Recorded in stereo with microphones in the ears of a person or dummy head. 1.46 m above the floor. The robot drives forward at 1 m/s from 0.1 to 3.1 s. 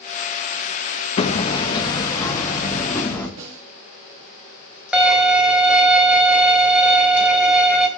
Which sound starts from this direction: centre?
A violin, at 4.9 s.